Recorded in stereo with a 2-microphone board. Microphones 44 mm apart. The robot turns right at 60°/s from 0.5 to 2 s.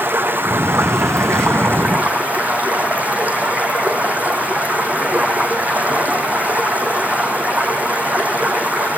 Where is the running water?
125° right, 3 m; by 9.0 s 35° right, 3 m.